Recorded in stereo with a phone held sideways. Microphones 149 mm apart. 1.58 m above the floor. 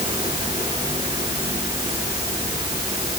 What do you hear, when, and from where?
0.0 s a fan: 30° right (ahead or behind), 7.5 m